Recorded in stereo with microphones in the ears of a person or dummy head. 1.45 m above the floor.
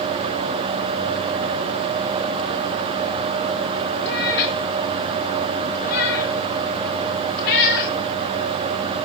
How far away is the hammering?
No hammering in this recording.